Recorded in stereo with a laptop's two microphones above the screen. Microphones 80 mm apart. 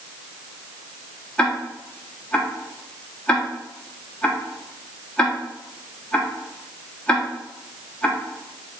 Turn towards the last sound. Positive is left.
turn(degrees=15)  # may be behind; listen again after turning